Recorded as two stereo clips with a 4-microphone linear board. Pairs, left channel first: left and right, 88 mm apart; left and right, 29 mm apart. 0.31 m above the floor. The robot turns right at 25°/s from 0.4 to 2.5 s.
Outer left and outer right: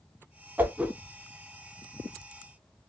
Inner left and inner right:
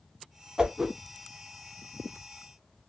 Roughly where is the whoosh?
Right.